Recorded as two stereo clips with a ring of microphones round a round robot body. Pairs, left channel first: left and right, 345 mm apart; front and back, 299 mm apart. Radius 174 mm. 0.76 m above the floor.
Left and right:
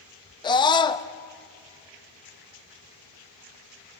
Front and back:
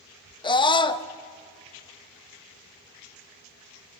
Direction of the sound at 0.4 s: 40° left.